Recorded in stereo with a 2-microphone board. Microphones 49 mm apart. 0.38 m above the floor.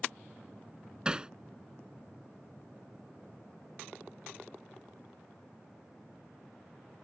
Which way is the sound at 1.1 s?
20° right (ahead or behind).